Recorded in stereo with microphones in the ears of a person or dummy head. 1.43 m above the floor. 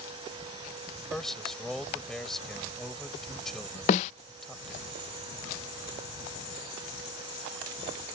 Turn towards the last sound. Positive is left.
turn(degrees=30)  # may be behind; listen again after turning